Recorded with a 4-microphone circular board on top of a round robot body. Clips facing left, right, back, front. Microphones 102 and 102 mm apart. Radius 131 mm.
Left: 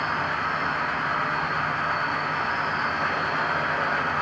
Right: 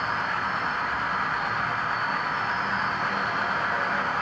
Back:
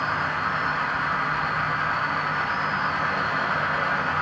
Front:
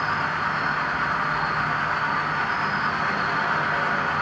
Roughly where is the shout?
I don't hear a shout.